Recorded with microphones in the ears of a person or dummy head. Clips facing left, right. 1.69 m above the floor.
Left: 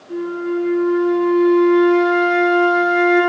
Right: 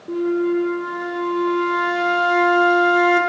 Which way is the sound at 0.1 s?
55° right (ahead or behind).